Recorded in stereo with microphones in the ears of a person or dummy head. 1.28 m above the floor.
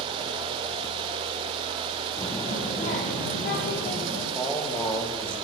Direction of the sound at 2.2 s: 35° left (ahead or behind).